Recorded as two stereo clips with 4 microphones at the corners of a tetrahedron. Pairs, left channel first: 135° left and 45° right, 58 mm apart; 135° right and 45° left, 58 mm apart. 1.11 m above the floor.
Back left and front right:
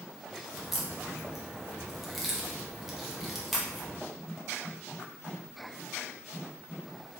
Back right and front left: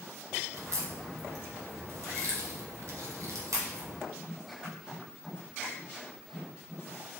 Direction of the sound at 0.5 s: 40° left.